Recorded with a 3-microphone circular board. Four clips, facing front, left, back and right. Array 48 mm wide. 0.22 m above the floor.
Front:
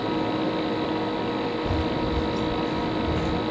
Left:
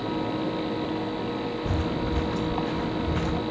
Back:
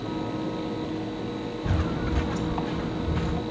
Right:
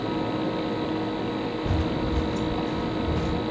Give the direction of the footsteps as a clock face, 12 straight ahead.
6 o'clock.